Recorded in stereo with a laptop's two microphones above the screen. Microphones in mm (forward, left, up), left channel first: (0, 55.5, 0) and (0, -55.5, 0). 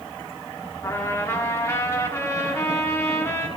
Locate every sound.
0.8 s a trumpet: 25° left (ahead or behind), 1.4 m